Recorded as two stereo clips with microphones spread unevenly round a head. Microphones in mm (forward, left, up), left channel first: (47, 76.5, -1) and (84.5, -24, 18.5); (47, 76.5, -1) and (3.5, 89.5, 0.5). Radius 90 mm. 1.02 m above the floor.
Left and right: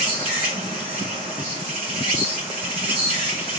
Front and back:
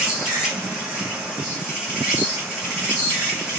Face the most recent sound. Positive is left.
turn(degrees=-115)